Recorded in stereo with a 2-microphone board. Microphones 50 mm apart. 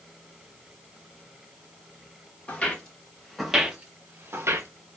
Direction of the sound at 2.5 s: 25° left (ahead or behind).